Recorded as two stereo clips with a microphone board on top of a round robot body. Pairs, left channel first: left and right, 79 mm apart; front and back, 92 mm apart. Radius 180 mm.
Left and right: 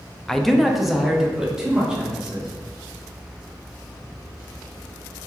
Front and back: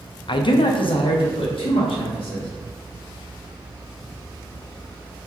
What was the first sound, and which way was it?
A man speaking, 5° left.